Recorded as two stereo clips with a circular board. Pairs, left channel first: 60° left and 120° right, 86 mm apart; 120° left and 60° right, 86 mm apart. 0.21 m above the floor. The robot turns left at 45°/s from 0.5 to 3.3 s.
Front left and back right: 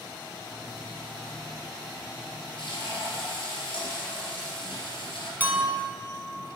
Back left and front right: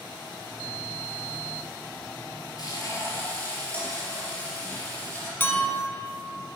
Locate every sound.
2.6 s frying: 80° left, 3 m; by 5.3 s 45° left, 3 m
5.4 s a clink: straight behind, 1.3 m